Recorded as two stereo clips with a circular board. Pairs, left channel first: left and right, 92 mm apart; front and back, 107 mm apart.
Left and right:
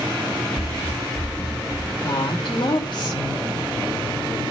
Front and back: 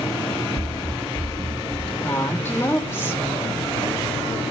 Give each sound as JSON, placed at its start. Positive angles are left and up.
{"t": 0.6, "sound": "running footsteps", "azimuth_deg": 155, "distance_m": 0.7}
{"t": 2.0, "sound": "a woman speaking", "azimuth_deg": 70, "distance_m": 3.5}